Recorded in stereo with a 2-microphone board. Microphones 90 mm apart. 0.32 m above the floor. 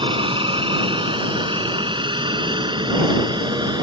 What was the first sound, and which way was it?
A helicopter, 60° right (ahead or behind).